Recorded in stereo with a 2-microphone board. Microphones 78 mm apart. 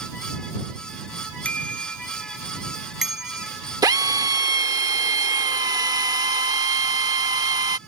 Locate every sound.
1.4 s a bicycle bell: 20° left (ahead or behind); by 3.5 s 10° right (ahead or behind)
3.8 s a drill: 55° right (ahead or behind)